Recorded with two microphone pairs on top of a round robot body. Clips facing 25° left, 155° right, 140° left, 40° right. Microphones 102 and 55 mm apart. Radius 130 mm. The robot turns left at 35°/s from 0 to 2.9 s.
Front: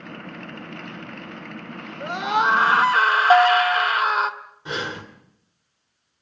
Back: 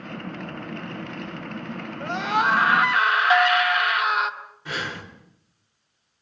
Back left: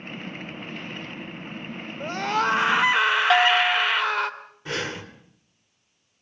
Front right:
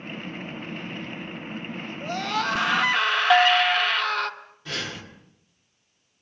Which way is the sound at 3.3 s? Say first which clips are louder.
Front 6 dB, front right 3 dB; 55° left.